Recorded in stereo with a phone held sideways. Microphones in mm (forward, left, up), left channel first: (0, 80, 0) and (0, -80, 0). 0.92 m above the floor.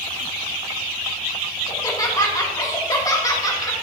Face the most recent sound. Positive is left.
turn(degrees=20)  # may be behind; listen again after turning